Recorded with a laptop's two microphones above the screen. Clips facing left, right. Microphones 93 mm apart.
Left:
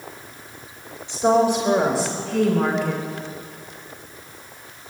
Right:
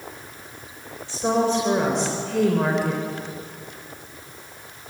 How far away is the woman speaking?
About 4.5 m.